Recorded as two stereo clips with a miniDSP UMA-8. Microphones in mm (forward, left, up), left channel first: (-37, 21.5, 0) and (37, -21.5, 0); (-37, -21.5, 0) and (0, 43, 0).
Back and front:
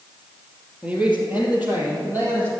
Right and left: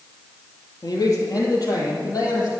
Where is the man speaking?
105° right, 3 m; by 2.5 s 90° right, 4 m.